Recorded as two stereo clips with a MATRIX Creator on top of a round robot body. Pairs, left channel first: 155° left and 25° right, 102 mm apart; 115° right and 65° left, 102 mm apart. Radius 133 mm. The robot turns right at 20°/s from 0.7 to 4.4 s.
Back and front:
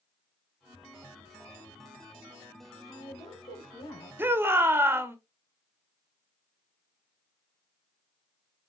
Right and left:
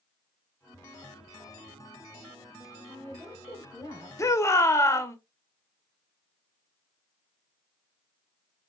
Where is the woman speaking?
170° left, 3 m; by 4.1 s 165° right, 3 m.